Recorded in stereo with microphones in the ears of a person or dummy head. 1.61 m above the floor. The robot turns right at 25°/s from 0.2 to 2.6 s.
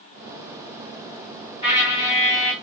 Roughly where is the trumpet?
Left.